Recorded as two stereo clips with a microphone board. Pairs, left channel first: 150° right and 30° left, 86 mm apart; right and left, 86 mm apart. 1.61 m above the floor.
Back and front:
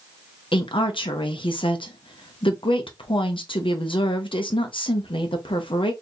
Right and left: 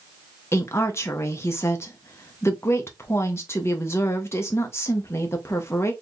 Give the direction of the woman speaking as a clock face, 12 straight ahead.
5 o'clock.